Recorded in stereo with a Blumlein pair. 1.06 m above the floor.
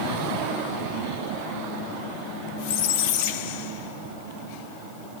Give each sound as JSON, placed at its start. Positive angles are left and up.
{"t": 2.6, "sound": "a squeak", "azimuth_deg": 50, "distance_m": 1.3}